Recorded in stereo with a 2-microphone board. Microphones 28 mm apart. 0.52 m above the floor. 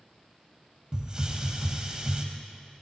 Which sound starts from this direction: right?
A hiss, at 0.9 s.